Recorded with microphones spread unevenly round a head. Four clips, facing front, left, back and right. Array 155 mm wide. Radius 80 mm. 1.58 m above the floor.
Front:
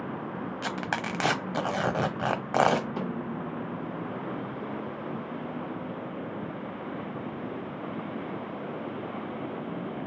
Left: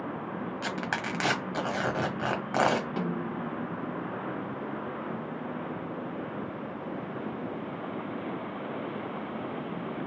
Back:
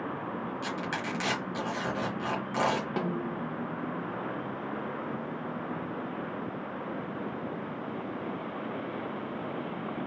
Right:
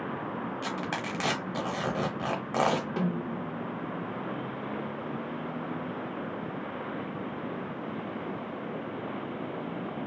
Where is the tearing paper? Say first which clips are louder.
Left 1 dB, front 2 dB; straight ahead, 0.7 m.